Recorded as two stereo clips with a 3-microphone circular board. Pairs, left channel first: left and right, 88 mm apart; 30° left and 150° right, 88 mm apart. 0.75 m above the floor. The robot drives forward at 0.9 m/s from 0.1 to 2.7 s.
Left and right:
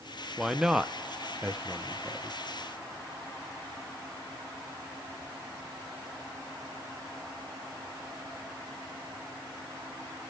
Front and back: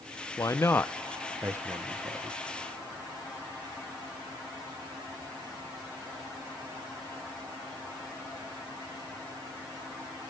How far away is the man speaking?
About 0.9 m.